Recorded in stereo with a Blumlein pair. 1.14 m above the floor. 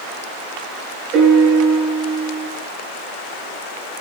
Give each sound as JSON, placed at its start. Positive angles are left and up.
{"t": 1.1, "sound": "a piano", "azimuth_deg": -35, "distance_m": 7.0}